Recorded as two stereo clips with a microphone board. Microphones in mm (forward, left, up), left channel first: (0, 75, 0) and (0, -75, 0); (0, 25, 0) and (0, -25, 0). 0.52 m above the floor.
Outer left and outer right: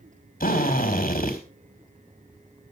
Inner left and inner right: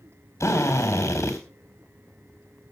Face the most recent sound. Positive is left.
turn(degrees=70)  # may be behind; listen again after turning